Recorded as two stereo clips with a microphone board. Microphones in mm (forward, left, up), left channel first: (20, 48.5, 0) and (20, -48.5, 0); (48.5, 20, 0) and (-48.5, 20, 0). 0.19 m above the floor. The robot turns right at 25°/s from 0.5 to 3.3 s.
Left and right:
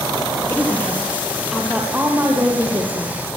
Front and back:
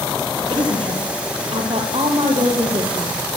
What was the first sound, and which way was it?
A woman speaking, 160° left.